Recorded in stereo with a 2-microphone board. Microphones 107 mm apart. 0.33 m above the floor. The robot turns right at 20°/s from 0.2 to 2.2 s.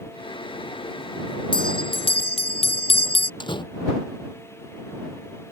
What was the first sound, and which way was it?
A bell, 50° left (ahead or behind).